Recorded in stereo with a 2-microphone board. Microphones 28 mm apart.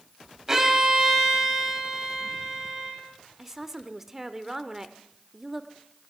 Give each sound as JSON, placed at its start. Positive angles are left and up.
{"t": 0.5, "sound": "a violin", "side_deg": -15, "distance_m": 3.0}
{"t": 3.4, "sound": "a woman speaking", "side_deg": -15, "distance_m": 1.0}